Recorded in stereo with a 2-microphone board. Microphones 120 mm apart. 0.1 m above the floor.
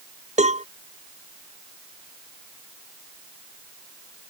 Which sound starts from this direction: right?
A cowbell, at 0.4 s.